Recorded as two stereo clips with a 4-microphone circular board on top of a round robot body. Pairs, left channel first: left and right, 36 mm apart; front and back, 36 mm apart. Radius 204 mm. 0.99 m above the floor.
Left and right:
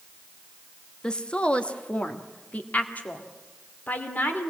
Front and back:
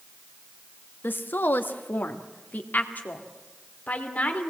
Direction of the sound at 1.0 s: 25° left.